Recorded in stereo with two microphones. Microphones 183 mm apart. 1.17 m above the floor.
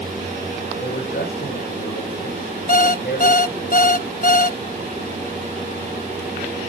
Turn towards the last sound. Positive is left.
turn(degrees=50)  # may be behind; listen again after turning